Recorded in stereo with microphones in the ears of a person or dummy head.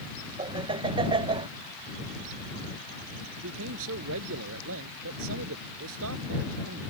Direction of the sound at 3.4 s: 80° right.